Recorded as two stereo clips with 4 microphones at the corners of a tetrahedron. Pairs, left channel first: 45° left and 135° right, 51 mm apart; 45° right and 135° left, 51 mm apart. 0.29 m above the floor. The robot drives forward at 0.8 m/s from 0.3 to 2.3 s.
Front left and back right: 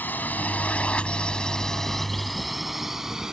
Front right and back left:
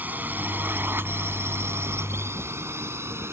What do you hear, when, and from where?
0.0 s a drone: 90° left; by 3.3 s 150° left